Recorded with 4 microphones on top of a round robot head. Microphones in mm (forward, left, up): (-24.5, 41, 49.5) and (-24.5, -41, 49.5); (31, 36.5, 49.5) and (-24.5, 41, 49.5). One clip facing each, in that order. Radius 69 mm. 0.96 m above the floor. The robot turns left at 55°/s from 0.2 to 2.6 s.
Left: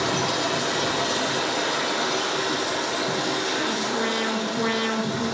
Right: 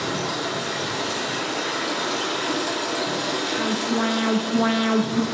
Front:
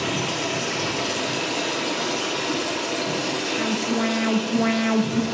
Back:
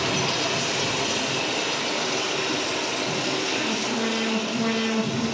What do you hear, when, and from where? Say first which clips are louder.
0.0 s running water: left 2 dB, even; 80° left, 1.5 m; by 5.3 s 50° right, 1.5 m
3.6 s an alarm: right 2 dB, front 3 dB; 45° right, 0.6 m